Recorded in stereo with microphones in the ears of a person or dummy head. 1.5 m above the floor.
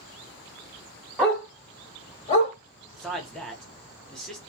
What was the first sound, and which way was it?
A dog barking, centre (ahead or behind).